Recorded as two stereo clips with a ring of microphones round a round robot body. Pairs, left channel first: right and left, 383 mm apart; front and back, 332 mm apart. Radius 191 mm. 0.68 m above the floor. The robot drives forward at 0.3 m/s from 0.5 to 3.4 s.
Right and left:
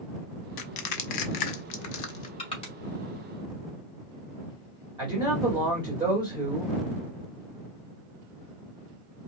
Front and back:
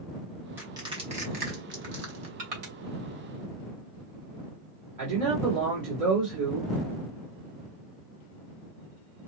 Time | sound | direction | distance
0.6 | crushing | 95° right | 0.8 m
2.4 | crushing | 165° right | 2 m
5.0 | a man speaking | 165° left | 1.9 m